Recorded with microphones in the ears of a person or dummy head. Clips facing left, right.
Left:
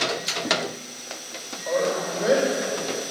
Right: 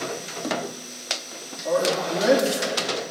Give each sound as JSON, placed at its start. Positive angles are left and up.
{"t": 1.6, "sound": "a man speaking", "side_deg": -70, "distance_m": 2.5}